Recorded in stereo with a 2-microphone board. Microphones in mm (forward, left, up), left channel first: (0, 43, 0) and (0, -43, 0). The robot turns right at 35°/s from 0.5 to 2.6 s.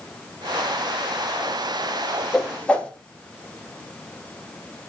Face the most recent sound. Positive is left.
turn(degrees=15)  # may be behind; listen again after turning